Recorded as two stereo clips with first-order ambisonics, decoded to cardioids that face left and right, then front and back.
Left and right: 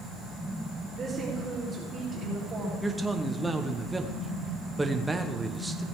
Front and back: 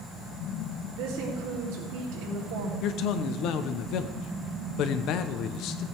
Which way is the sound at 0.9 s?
165° right.